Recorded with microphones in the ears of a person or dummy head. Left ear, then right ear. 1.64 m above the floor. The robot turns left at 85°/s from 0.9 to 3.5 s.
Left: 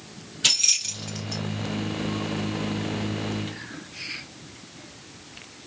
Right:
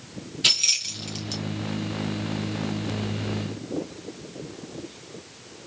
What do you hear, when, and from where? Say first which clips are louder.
0.4 s keys jangling: even; centre (ahead or behind), 1.0 m; by 1.4 s 35° right (ahead or behind), 1.0 m